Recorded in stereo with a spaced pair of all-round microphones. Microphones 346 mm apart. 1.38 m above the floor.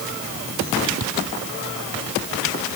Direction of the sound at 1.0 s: 55° right (ahead or behind).